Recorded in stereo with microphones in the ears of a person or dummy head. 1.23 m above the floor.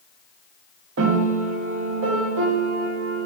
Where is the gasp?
I don't hear a gasp.